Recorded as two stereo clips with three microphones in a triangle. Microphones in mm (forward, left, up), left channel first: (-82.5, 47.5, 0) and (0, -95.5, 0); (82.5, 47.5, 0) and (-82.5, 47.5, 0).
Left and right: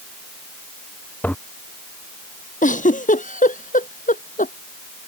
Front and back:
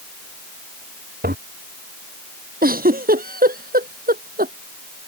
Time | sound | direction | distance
1.2 | a toilet flushing | 160° right | ?
2.6 | a giggle | 155° left | ?